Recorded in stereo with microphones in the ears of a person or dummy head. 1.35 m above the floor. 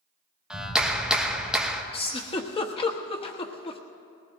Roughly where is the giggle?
Left.